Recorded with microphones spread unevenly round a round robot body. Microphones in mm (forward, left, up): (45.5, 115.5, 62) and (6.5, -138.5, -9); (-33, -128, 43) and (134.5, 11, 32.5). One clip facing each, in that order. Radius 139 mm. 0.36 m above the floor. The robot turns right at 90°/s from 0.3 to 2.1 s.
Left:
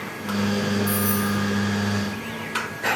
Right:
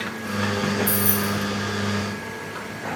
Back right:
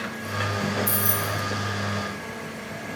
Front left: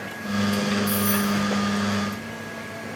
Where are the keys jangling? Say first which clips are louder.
Left 1 dB, front left 7 dB; 125° right, 0.8 m; by 1.3 s 80° right, 0.8 m.